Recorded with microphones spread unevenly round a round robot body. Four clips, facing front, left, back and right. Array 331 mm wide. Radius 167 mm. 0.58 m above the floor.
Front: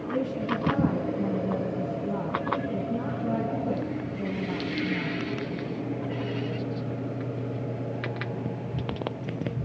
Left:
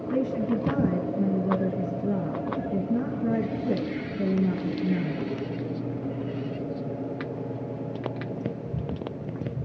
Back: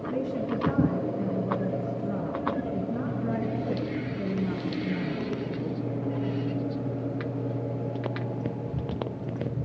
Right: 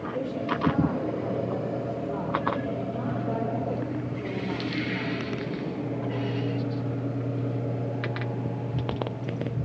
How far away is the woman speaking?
About 7 m.